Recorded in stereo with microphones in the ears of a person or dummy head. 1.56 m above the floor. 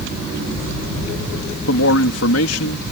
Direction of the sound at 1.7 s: 80° left.